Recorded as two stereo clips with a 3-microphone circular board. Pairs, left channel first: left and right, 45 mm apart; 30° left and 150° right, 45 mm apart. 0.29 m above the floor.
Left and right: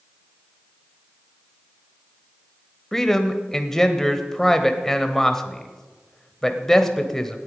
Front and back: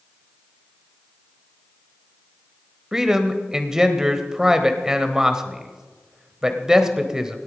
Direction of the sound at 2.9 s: 155° left.